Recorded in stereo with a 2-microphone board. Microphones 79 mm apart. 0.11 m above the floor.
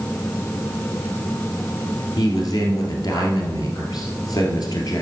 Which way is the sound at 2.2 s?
55° left (ahead or behind).